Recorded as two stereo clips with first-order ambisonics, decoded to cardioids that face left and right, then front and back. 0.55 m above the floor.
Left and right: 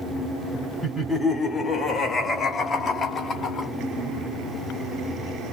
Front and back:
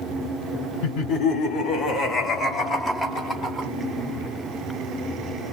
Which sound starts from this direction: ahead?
Laughter, at 0.8 s.